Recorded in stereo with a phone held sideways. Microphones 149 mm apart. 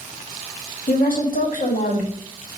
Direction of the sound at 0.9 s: 70° left (ahead or behind).